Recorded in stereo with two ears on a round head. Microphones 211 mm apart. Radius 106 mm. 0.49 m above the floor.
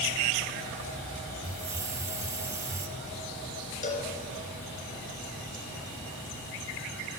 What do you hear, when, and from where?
1.4 s a hiss: 15° right (ahead or behind), 1.3 m
3.8 s a cowbell: 35° left (ahead or behind), 2.5 m